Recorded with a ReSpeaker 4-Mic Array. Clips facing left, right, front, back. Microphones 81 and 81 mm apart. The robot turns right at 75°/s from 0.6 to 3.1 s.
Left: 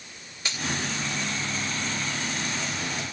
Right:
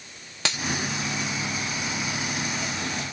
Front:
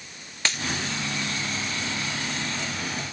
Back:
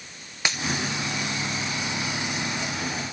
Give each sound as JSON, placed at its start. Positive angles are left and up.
{"t": 0.5, "sound": "a dropped coin", "azimuth_deg": -100, "distance_m": 1.1}